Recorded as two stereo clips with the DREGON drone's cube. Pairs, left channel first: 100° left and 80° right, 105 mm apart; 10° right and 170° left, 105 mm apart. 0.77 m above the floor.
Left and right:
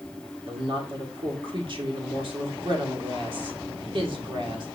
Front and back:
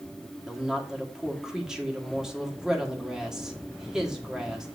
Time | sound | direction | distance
0.5 | a woman speaking | 105° right | 1.7 m